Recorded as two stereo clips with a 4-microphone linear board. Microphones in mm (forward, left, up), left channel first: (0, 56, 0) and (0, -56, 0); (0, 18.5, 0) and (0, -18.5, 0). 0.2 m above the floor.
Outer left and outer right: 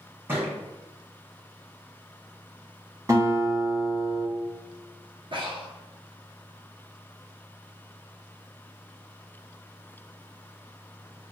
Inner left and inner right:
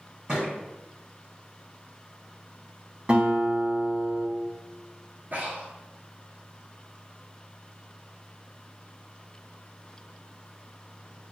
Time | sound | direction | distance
0.3 | a thud | 20° right (ahead or behind) | 1.8 m
3.1 | a guitar | 30° right (ahead or behind) | 1.1 m
5.3 | breathing | 50° right (ahead or behind) | 0.8 m